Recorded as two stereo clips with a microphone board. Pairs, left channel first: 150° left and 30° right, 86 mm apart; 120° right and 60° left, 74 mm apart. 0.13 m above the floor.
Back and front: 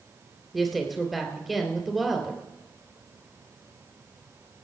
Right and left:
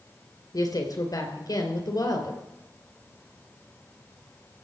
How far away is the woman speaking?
About 3 m.